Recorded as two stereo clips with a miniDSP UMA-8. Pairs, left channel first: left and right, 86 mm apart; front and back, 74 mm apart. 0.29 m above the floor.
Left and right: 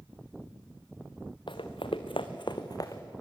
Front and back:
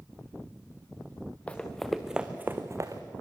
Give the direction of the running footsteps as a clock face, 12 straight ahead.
10 o'clock.